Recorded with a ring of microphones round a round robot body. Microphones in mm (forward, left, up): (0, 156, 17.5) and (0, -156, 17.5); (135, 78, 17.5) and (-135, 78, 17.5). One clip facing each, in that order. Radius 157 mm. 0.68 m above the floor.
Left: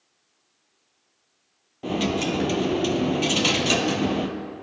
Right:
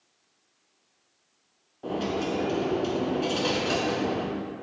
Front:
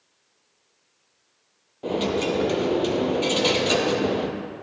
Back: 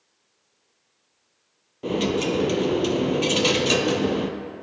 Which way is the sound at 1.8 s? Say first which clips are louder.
Left 4 dB, back 1 dB; 115° left.